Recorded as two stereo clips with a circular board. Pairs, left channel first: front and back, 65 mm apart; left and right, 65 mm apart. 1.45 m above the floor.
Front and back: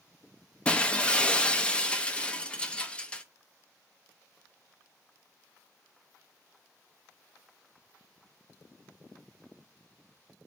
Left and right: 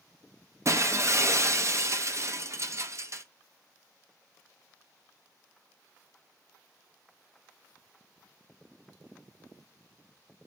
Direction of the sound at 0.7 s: 70° right.